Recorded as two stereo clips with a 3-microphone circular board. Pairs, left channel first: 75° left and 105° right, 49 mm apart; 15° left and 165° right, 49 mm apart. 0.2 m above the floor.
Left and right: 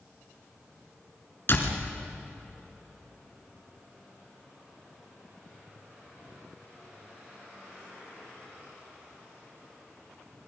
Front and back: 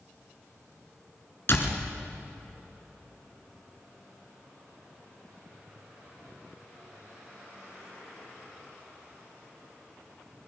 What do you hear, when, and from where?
1.5 s a door slam: 45° left, 2 m